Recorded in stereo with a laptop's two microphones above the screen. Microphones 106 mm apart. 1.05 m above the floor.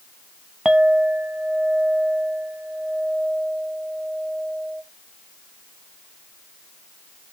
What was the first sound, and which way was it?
A clink, 5° right (ahead or behind).